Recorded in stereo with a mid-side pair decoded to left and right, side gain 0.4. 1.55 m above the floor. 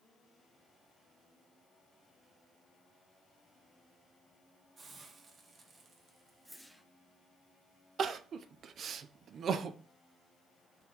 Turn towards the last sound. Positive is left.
turn(degrees=-65)